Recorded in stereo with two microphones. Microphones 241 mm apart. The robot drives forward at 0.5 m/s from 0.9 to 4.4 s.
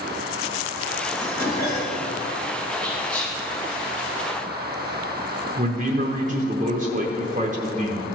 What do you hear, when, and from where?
1.2 s dishes clattering: 65° left (ahead or behind), 2.5 m; by 2.1 s 75° left (ahead or behind), 2.5 m
2.8 s whispering: 30° left (ahead or behind), 1.5 m; by 3.4 s 35° left (ahead or behind), 1.3 m
5.6 s a man speaking: 30° right (ahead or behind), 0.8 m